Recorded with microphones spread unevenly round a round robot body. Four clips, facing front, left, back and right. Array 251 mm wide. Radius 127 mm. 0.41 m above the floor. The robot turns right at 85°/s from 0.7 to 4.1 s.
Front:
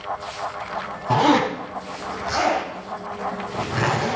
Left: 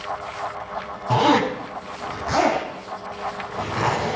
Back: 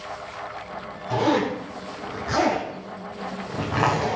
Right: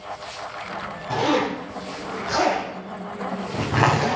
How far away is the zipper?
About 3.5 m.